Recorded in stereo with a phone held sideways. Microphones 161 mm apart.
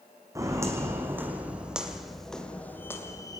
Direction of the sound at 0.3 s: 20° right (ahead or behind).